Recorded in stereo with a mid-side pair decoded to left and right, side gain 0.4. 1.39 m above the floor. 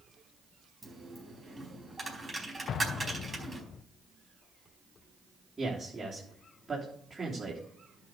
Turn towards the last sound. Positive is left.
turn(degrees=-20)